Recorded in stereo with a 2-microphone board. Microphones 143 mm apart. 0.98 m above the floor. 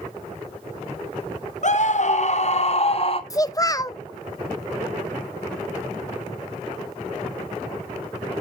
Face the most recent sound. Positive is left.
turn(degrees=25)  # may be behind; listen again after turning